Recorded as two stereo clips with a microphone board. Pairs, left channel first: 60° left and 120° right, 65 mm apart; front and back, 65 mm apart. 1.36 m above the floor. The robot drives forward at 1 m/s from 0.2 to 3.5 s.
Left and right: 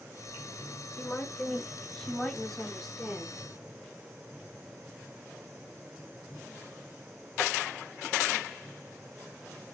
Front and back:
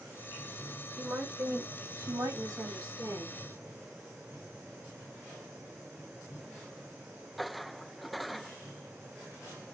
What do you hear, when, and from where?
1.0 s a woman speaking: 125° left, 2 m; by 3.4 s 155° left, 4 m